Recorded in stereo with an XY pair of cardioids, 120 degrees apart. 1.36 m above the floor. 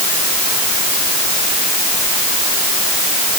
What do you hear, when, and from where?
Only background noise.